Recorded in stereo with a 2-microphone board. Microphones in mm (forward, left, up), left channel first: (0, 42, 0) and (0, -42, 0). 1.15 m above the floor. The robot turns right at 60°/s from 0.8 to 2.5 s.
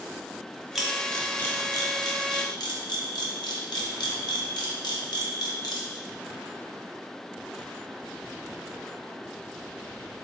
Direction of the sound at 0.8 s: 5° right (ahead or behind).